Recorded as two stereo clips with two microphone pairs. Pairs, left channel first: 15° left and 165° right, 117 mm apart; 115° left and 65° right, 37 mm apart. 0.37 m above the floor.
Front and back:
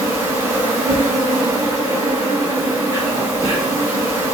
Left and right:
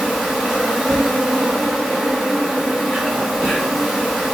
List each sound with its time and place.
0.0 s an insect: 130° right, 1.0 m